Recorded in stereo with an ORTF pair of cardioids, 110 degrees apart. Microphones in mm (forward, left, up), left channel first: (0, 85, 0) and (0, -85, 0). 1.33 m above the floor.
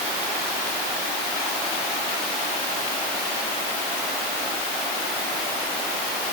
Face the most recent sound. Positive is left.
No sound to turn to.